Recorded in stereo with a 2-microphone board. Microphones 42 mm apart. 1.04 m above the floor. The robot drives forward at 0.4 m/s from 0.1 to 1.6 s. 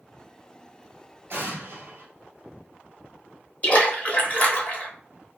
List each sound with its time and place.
1.3 s an explosion: 50° right (ahead or behind), 1.8 m
3.6 s a splash: 30° left (ahead or behind), 0.9 m